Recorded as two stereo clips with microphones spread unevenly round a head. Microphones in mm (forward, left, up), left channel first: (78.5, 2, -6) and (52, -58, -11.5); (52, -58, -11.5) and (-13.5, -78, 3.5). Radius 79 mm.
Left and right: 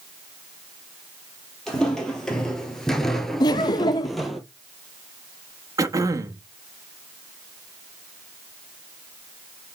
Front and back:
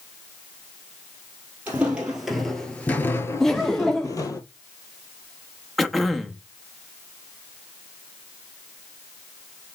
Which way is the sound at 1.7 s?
140° left.